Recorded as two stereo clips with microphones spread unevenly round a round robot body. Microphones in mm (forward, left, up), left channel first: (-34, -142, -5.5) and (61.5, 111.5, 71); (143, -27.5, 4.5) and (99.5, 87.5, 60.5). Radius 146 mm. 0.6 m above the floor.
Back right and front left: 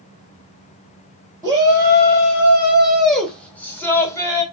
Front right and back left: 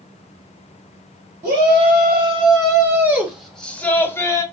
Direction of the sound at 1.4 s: 160° left.